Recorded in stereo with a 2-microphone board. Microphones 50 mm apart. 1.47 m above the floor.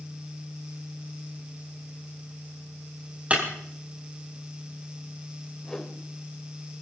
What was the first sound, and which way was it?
Breaking glass, 25° right (ahead or behind).